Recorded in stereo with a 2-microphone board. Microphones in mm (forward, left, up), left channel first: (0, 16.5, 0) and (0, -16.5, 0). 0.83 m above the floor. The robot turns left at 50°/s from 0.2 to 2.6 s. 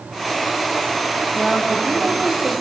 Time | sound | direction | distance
1.3 | a woman speaking | 5° left | 4.5 m